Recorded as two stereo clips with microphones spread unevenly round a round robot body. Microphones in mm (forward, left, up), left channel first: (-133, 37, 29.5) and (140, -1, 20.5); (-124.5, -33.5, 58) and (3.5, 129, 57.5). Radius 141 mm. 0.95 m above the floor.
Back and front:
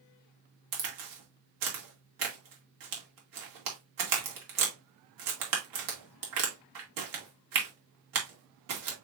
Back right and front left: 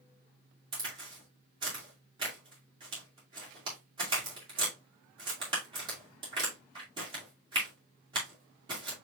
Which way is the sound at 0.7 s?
20° right.